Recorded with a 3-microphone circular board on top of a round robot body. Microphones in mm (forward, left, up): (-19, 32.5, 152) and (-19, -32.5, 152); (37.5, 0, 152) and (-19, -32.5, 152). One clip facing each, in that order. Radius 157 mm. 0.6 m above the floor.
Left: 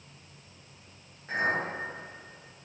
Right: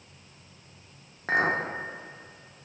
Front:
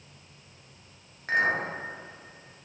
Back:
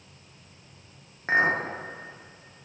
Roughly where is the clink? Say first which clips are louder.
Right 4 dB, back 2 dB; right.